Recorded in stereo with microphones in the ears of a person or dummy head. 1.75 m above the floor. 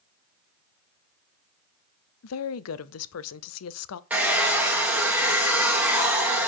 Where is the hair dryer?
5° right (ahead or behind), 1.4 m.